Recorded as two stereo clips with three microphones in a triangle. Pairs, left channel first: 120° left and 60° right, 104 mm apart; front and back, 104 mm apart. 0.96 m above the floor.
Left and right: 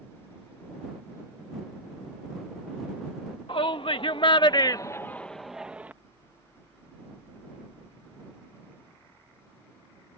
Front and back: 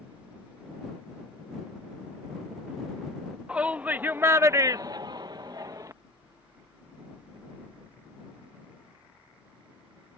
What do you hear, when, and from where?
3.5 s a shout: 105° left; by 5.9 s 130° right